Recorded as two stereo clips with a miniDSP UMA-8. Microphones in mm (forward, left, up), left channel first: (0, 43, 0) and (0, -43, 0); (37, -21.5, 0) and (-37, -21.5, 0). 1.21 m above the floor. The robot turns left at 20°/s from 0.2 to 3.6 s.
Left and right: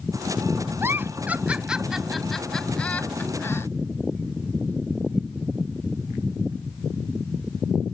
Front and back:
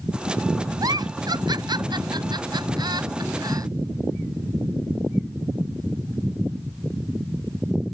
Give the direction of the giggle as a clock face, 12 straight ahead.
5 o'clock.